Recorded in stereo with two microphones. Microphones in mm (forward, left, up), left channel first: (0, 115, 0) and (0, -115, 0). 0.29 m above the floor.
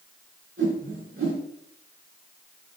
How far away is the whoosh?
About 3 m.